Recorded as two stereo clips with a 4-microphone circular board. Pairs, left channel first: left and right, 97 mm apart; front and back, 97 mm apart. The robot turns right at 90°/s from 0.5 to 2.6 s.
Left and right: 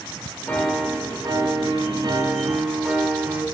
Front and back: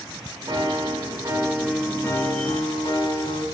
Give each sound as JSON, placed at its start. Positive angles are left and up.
{"t": 0.5, "sound": "a piano", "azimuth_deg": 160, "distance_m": 0.8}